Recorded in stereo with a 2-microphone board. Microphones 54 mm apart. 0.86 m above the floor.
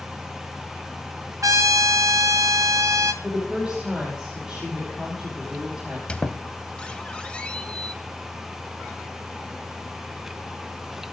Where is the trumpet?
80° right, 1.1 m.